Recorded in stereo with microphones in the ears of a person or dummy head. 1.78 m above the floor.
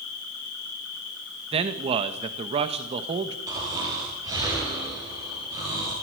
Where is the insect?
70° left (ahead or behind), 9.5 m.